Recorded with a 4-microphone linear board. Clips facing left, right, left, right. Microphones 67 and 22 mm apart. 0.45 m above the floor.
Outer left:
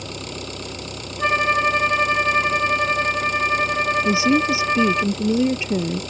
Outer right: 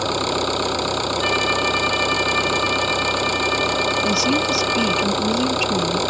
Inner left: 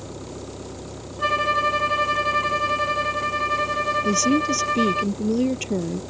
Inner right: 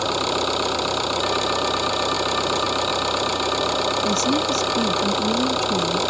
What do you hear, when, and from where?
0.0 s an engine running: 75° right (ahead or behind)
1.2 s a violin: 35° left (ahead or behind)
4.0 s a woman speaking: 30° left (ahead or behind)